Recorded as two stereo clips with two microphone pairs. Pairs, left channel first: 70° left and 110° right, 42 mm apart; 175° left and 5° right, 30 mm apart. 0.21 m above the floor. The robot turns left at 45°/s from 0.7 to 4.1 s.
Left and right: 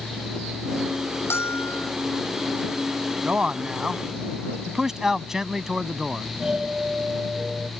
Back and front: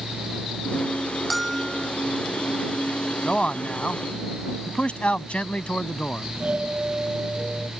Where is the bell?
85° left; by 1.9 s 60° left.